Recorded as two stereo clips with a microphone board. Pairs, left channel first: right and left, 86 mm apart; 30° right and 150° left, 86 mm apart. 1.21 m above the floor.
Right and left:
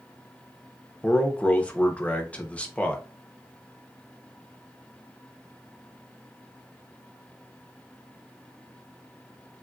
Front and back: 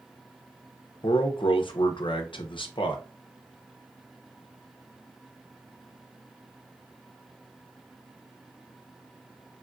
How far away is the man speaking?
About 0.6 m.